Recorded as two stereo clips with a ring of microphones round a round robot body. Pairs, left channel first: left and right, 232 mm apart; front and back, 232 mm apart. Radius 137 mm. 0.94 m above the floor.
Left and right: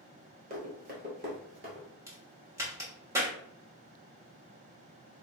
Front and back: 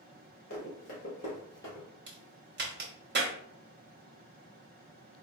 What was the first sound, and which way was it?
Running footsteps, 45° right.